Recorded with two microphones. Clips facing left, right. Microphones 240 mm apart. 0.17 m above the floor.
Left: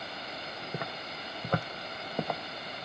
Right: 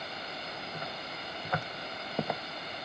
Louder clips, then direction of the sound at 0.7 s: Left 2 dB; 80° left.